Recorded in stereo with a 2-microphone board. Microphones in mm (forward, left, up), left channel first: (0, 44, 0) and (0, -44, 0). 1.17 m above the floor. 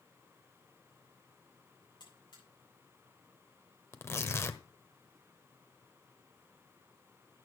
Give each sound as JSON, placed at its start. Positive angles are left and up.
{"t": 2.0, "sound": "a buzzer", "side_deg": 55, "distance_m": 8.0}
{"t": 3.9, "sound": "tearing paper", "side_deg": 30, "distance_m": 1.0}